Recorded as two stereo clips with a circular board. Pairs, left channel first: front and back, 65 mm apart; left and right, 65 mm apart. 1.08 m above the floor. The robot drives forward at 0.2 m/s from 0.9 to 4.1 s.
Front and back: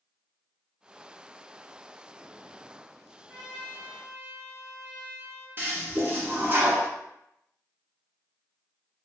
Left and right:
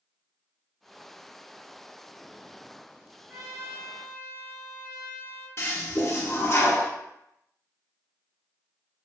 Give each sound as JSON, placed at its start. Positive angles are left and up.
{"t": 3.3, "sound": "a trumpet", "azimuth_deg": -155, "distance_m": 1.6}
{"t": 5.6, "sound": "a toilet flushing", "azimuth_deg": 130, "distance_m": 0.6}